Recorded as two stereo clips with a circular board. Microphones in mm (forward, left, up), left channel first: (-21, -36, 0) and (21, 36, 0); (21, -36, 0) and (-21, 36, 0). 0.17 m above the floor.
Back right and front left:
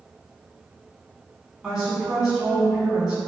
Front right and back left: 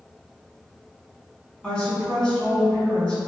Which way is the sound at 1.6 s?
5° right.